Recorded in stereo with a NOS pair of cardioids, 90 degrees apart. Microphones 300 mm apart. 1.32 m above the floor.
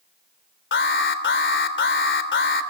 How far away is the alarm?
About 3.5 m.